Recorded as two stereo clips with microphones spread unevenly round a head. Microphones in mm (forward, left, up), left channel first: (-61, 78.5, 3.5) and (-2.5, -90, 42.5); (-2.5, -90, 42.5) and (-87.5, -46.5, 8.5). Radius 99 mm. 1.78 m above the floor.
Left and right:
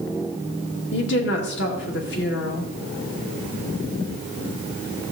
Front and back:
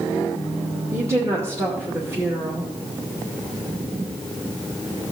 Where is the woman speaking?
70° left, 2 m.